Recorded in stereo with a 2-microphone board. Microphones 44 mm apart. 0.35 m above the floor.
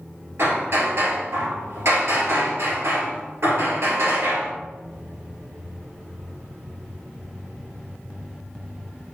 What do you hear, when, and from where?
0.4 s hammering: 65° right (ahead or behind), 1.9 m